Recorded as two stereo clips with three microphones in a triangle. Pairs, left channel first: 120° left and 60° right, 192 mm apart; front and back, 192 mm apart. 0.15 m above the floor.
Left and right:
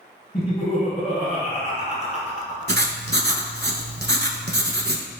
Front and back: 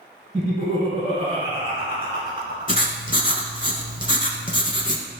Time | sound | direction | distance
0.3 | laughter | 140° left | 1.4 m
2.7 | writing | 40° right | 0.6 m